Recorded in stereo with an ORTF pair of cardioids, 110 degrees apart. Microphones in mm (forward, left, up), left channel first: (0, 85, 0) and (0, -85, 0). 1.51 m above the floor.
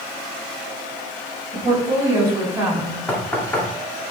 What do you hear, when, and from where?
1.5 s a woman speaking: 15° right, 4 m; by 3.0 s 20° right, 5.5 m
3.1 s knocking: 10° left, 2 m